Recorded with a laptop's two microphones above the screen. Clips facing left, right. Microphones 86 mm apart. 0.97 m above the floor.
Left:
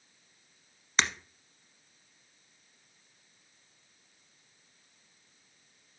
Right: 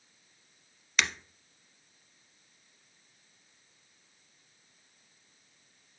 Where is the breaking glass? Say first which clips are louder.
Left 1 dB; 30° left (ahead or behind), 1.0 m.